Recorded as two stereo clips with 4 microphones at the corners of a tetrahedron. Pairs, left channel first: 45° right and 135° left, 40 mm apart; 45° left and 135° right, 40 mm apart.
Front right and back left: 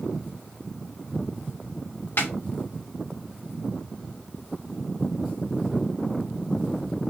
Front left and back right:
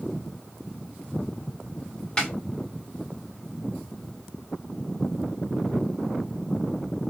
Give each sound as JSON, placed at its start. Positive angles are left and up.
{"t": 2.2, "sound": "a snare drum", "azimuth_deg": -30, "distance_m": 1.4}